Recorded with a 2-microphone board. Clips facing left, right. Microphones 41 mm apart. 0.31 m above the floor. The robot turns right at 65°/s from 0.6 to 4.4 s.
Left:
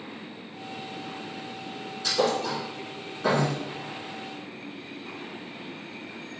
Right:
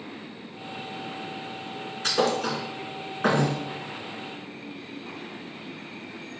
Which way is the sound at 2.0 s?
50° right (ahead or behind).